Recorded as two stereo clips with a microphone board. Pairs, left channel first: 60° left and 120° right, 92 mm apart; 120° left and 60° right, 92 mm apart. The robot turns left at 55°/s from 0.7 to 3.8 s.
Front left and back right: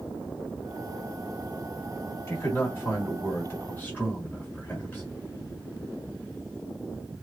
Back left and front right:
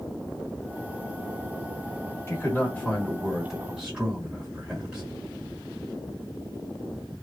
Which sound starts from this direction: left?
A man speaking, at 2.3 s.